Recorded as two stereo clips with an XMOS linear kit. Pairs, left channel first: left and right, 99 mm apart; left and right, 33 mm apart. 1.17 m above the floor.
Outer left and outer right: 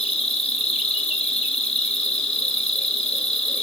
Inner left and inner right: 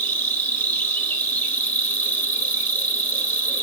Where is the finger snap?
No finger snap in this recording.